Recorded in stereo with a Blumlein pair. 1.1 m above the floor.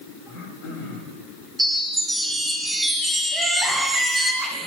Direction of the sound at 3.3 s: 10° right.